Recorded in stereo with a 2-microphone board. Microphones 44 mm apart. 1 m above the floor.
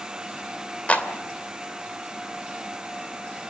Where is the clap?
30° left (ahead or behind), 2.5 m.